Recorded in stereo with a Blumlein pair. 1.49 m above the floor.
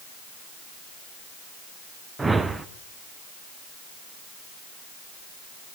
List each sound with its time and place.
2.2 s a whoosh: 10° right, 0.6 m